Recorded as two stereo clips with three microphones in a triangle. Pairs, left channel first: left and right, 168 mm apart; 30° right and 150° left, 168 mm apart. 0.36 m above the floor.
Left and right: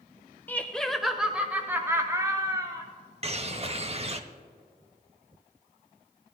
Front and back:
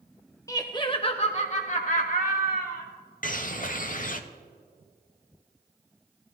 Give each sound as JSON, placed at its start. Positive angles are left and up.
{"t": 0.5, "sound": "laughter", "azimuth_deg": 20, "distance_m": 1.1}
{"t": 3.2, "sound": "a bird", "azimuth_deg": -45, "distance_m": 0.7}